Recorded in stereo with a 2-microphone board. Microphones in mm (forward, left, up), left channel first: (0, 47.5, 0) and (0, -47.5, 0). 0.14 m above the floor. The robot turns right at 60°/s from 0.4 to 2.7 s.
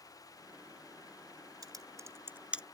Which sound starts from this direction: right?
Typing on a keyboard, at 1.6 s.